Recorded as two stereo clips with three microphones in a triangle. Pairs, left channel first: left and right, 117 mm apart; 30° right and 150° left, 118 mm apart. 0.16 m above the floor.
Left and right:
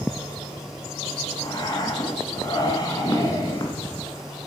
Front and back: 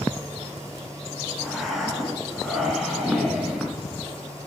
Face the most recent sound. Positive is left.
turn(degrees=60)